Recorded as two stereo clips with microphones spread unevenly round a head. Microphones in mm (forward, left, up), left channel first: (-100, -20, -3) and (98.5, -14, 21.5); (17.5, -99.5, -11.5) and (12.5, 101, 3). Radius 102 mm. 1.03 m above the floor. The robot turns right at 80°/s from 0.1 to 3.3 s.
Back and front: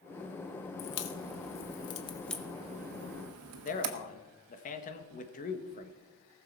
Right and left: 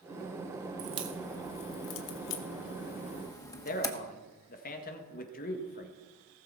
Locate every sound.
0.8 s a crack: 145° left, 1.3 m; by 3.9 s 15° right, 1.3 m
3.6 s a man speaking: 135° right, 1.6 m